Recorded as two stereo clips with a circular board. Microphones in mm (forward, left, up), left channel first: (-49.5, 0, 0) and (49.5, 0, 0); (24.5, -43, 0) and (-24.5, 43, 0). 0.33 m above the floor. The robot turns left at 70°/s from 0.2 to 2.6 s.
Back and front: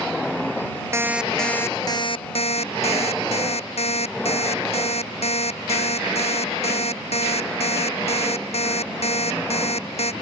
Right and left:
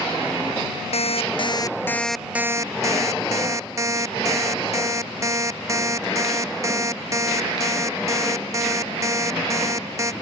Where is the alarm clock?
65° right; by 10.1 s straight behind.